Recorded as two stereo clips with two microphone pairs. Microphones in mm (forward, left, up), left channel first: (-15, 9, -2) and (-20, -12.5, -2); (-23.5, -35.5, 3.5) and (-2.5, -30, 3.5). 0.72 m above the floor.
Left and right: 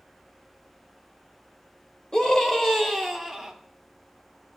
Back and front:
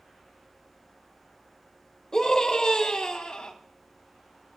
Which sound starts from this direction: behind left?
A scream, at 2.1 s.